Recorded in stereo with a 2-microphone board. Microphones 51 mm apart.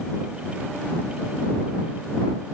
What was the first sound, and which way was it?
Only background noise.